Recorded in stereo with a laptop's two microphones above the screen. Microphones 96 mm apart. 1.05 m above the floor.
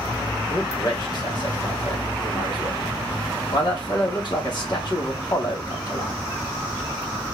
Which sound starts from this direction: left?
A man speaking, at 0.5 s.